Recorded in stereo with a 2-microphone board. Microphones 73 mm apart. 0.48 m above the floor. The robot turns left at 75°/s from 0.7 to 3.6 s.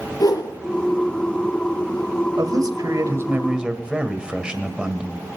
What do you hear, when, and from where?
0.2 s a whoosh: 60° left (ahead or behind), 5 m
2.4 s a man speaking: 75° right, 2.0 m; by 5.3 s 165° right, 2.0 m